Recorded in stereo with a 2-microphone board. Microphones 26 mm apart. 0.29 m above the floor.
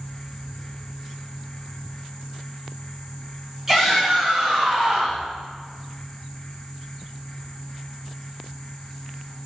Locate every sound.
3.7 s a shout: 15° right (ahead or behind), 2.5 m; by 5.2 s 35° right (ahead or behind), 2 m